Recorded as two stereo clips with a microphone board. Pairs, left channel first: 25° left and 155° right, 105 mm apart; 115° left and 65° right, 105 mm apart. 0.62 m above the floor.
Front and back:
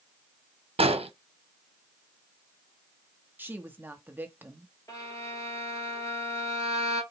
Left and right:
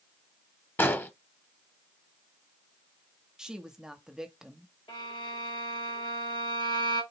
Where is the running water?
No running water in this recording.